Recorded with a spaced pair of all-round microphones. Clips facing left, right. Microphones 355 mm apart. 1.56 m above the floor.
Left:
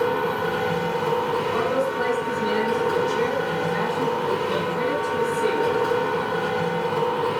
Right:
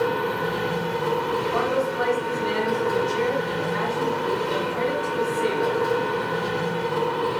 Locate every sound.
0.0 s a machine running: 70° left (ahead or behind), 1.5 m
1.5 s a man speaking: 50° left (ahead or behind), 1.4 m